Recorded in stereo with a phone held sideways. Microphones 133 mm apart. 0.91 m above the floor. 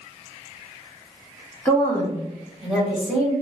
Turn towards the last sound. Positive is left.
turn(degrees=-5)  # may be behind; listen again after turning